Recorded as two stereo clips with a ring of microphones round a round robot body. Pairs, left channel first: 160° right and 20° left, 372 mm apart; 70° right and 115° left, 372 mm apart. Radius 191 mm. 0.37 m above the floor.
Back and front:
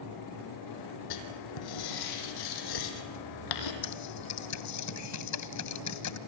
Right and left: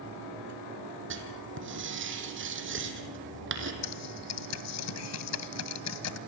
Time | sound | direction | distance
1.1 | writing | 175° left | 4 m
3.8 | typing on a keyboard | 115° right | 2.5 m